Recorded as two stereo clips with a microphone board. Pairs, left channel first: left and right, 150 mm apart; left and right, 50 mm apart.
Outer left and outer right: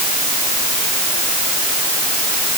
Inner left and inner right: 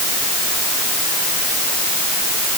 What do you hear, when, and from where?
Only background noise.